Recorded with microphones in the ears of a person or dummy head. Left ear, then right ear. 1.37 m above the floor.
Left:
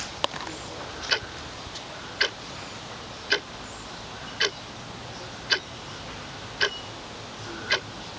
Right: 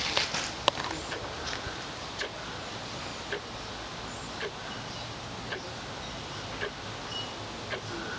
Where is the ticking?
65° left (ahead or behind).